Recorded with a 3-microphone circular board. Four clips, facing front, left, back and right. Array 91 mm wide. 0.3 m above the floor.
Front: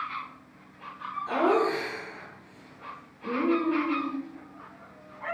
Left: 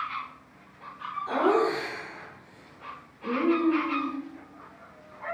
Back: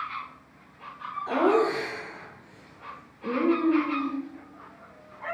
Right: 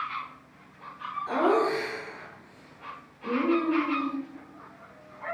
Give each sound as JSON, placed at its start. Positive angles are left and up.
{"t": 1.3, "sound": "laughter", "azimuth_deg": -175, "distance_m": 5.0}